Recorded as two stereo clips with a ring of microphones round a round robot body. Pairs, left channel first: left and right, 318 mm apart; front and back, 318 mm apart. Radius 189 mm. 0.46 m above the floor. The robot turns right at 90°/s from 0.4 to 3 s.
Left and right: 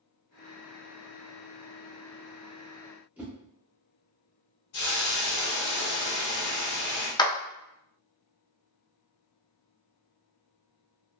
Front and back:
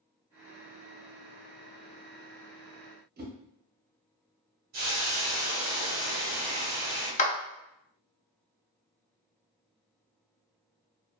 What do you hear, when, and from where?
3.2 s a whoosh: 170° right, 0.8 m
4.7 s a hiss: 120° left, 1.0 m
7.2 s a clap: 30° left, 0.5 m